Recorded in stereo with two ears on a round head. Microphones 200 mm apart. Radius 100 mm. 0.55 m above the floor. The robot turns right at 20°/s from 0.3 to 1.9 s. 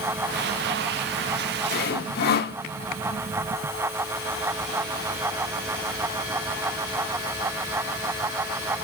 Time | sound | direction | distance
1.7 | sawing | 45° left (ahead or behind) | 1.0 m